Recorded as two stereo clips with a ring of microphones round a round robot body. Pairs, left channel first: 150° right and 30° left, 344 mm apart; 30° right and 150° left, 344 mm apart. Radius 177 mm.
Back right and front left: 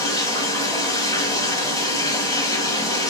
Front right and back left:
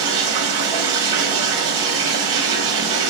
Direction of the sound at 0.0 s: 130° left.